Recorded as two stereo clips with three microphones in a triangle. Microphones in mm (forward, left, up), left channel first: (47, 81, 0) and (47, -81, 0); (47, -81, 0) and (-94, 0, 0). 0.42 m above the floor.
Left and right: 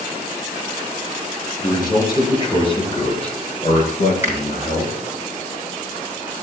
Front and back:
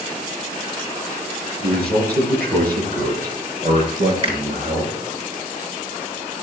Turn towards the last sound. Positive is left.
turn(degrees=-165)